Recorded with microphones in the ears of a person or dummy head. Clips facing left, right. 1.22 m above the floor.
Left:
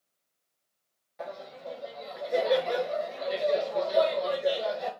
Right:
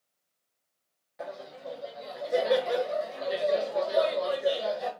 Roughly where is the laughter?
Centre.